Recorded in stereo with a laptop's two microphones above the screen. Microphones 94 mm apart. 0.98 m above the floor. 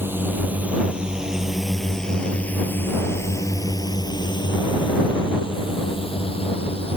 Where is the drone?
25° right (ahead or behind); by 7.0 s 75° left (ahead or behind).